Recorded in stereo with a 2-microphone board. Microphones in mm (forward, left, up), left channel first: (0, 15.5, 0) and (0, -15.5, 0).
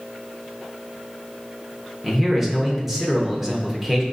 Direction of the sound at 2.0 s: 5° right (ahead or behind).